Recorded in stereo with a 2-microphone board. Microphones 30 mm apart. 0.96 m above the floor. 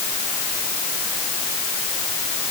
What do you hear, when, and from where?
Only background noise.